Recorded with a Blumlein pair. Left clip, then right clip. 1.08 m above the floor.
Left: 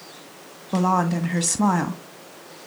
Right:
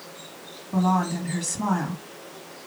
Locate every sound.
0.7 s a woman speaking: 25° left, 1.6 m